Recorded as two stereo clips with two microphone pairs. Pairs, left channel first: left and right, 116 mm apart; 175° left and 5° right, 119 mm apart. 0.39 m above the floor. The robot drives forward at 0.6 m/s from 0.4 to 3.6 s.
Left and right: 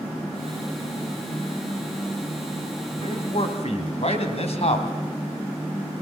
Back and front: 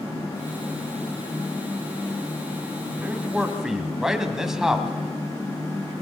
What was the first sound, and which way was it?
A man speaking, 75° left.